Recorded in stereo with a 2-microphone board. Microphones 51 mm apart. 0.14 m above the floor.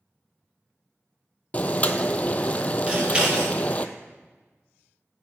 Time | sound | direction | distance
1.5 | boiling | 30° left (ahead or behind) | 0.8 m
2.9 | scissors | 20° right (ahead or behind) | 3.5 m